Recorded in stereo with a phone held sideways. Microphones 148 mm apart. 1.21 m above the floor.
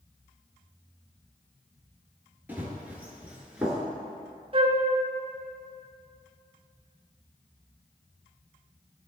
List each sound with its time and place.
2.5 s running footsteps: 15° right (ahead or behind), 1.3 m; by 3.8 s 5° right (ahead or behind), 1.1 m
4.5 s a flute: 35° right (ahead or behind), 0.6 m